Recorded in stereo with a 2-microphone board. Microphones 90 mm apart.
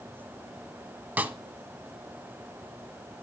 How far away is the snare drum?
About 0.6 m.